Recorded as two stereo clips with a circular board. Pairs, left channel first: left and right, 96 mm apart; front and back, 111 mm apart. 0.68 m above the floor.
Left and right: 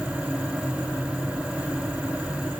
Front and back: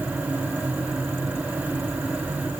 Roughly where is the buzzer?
I don't hear a buzzer.